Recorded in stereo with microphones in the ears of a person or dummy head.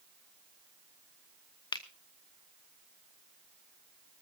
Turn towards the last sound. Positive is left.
turn(degrees=25)  # may be behind; listen again after turning